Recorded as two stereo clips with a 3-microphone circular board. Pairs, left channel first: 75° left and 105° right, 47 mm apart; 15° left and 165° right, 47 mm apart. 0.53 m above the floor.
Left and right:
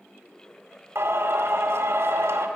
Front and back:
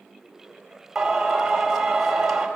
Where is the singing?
80° right, 2 m.